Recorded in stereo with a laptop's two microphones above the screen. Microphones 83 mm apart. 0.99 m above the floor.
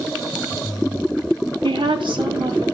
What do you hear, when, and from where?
1.6 s a woman speaking: 80° right, 1.5 m